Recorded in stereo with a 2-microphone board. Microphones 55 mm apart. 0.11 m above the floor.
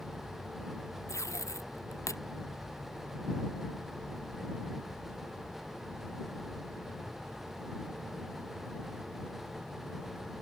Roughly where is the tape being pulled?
Left.